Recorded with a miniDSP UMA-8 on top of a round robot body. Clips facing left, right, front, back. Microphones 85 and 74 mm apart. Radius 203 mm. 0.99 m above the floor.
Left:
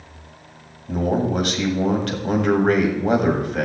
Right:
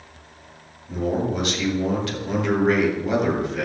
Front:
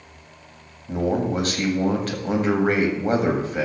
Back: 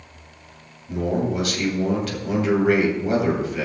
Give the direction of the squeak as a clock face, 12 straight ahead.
No squeak in this recording.